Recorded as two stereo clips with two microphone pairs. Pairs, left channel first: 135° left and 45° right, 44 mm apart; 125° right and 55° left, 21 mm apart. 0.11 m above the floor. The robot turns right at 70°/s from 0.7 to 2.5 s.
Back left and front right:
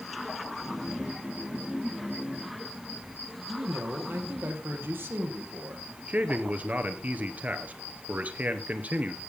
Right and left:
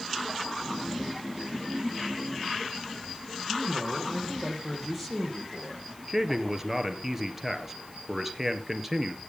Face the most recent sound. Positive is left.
turn(degrees=-10)